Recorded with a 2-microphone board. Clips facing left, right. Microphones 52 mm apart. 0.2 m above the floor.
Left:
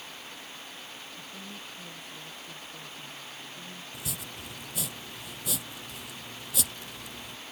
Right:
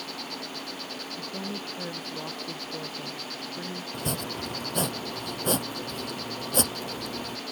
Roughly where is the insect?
Right.